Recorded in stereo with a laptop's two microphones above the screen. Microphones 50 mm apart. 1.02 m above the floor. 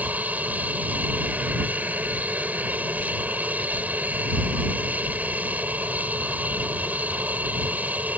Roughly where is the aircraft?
Right.